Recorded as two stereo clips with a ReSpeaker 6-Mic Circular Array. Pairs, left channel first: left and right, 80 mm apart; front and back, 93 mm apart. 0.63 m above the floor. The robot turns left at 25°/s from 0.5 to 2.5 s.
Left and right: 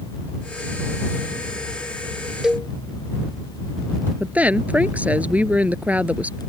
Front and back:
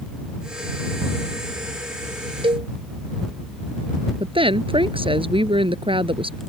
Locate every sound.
2.4 s a cowbell: 170° right
4.2 s a woman speaking: 160° right